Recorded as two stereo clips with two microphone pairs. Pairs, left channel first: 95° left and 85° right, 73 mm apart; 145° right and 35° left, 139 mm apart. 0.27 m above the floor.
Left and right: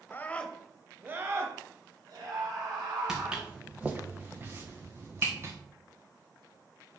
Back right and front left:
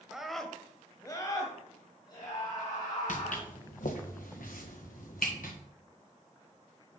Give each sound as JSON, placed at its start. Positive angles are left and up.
{"t": 0.1, "sound": "a scream", "azimuth_deg": 110, "distance_m": 0.9}
{"t": 3.1, "sound": "footsteps", "azimuth_deg": -165, "distance_m": 1.2}